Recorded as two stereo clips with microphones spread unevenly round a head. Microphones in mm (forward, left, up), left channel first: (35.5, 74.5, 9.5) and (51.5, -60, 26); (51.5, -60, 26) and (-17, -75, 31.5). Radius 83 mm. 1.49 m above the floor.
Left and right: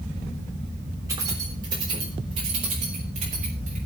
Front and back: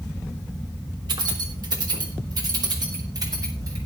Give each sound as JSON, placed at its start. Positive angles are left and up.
{"t": 1.1, "sound": "keys jangling", "azimuth_deg": -155, "distance_m": 3.5}